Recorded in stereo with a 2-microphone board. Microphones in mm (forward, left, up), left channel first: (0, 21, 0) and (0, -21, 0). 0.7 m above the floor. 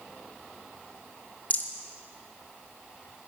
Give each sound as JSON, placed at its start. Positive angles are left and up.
{"t": 1.5, "sound": "a rattle", "side_deg": 40, "distance_m": 0.9}